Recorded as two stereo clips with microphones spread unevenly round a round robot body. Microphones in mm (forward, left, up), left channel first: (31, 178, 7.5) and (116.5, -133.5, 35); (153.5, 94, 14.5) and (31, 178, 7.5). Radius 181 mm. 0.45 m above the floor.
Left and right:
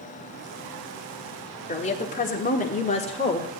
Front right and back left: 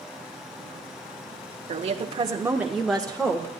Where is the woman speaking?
165° left, 1.2 m; by 3.5 s 35° left, 1.5 m.